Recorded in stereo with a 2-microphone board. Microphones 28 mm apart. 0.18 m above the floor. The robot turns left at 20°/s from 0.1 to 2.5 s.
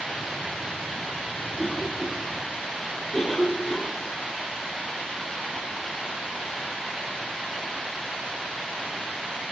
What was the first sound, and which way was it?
A cough, 30° left (ahead or behind).